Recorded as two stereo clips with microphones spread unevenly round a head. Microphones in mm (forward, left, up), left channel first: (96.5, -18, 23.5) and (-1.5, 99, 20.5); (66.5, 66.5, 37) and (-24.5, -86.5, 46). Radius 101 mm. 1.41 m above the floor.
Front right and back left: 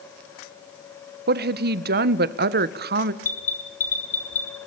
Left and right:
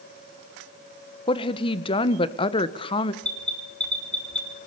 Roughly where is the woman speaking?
Behind left.